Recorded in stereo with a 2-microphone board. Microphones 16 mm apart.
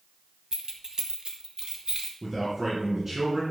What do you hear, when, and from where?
0.5 s keys jangling: 40° right (ahead or behind), 1.2 m; by 2.1 s 60° right (ahead or behind), 2 m
2.2 s a man speaking: 20° right (ahead or behind), 2.5 m